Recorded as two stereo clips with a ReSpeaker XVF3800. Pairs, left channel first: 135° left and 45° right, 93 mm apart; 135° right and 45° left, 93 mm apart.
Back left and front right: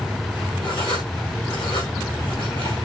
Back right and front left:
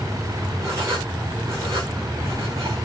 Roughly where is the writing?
Left.